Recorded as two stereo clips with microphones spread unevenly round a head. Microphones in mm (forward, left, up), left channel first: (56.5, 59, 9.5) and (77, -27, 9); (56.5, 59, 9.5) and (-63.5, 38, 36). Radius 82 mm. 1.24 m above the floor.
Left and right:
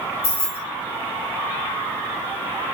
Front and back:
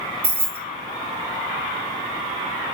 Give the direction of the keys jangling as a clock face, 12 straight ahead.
8 o'clock.